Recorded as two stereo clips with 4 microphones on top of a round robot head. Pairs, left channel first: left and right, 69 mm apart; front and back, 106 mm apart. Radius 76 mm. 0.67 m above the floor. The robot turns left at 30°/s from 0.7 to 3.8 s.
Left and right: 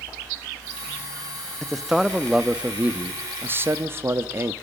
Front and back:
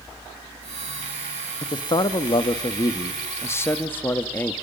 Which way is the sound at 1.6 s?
5° left.